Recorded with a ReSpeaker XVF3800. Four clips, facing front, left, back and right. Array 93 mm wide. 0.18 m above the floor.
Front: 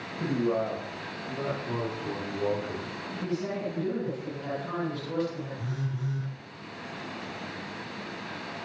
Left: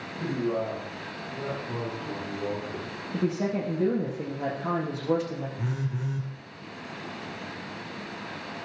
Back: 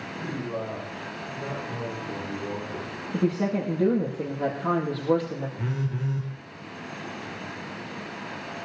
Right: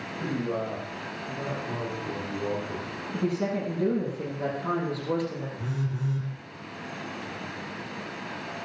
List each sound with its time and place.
0.2 s a man speaking: 15° left, 8 m; by 2.9 s 10° right, 8.5 m
3.1 s a woman speaking: 155° left, 5.5 m
5.6 s a phone buzzing: 145° left, 3.5 m